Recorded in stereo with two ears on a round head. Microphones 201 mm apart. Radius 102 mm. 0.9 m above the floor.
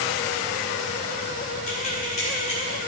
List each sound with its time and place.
1.7 s keys jangling: 35° left (ahead or behind), 2.5 m; by 2.8 s 30° left (ahead or behind), 3 m